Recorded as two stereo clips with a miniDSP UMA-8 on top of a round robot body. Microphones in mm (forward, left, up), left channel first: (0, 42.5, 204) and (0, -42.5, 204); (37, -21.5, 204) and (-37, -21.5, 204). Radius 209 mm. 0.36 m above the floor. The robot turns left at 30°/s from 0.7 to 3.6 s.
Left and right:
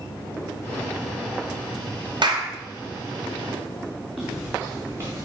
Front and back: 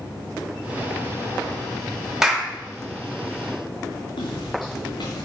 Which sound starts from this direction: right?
A clap, at 2.2 s.